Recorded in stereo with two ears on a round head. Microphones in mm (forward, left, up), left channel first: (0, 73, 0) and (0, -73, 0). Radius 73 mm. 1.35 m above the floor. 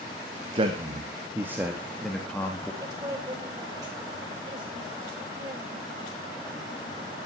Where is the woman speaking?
25° right (ahead or behind), 7 m.